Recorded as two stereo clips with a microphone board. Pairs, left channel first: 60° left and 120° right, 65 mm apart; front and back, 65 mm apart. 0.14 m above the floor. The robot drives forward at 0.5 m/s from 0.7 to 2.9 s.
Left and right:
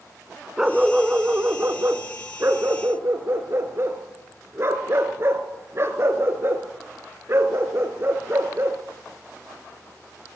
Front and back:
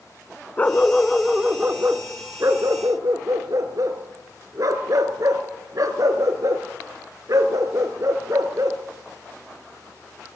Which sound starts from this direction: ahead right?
A dog barking, at 0.6 s.